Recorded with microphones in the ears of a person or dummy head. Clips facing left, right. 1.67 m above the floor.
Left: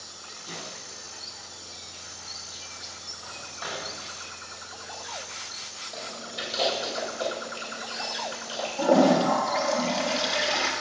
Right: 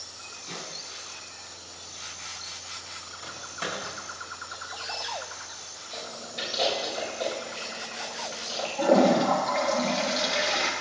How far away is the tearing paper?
About 4.5 m.